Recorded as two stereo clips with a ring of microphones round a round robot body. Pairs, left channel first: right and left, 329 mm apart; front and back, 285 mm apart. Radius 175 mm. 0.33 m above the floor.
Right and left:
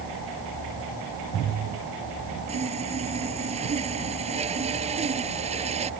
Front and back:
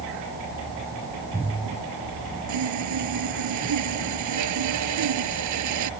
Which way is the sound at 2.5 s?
160° left.